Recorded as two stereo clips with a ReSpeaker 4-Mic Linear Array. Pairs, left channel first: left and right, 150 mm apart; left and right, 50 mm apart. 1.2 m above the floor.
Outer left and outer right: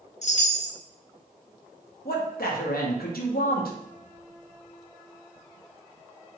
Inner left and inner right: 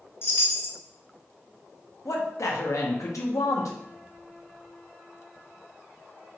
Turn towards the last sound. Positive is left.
turn(degrees=85)